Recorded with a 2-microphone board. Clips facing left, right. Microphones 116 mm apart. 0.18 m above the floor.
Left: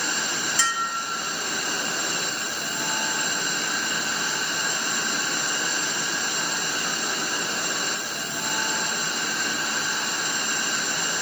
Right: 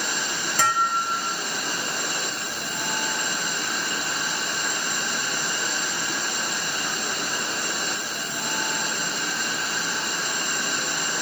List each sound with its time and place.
0.6 s dishes clattering: 50° right (ahead or behind)